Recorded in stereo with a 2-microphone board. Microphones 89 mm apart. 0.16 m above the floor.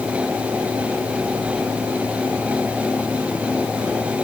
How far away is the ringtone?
No ringtone in this recording.